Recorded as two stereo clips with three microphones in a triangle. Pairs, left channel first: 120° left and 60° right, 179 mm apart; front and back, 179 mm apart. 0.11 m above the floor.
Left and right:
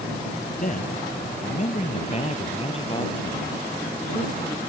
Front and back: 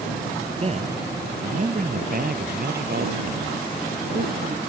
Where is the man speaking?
135° left; by 4.6 s 170° right.